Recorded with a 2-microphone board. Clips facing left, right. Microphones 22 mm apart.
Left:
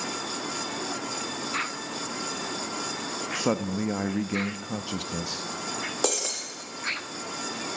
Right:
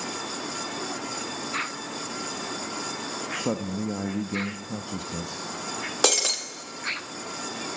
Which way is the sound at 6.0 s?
40° right (ahead or behind).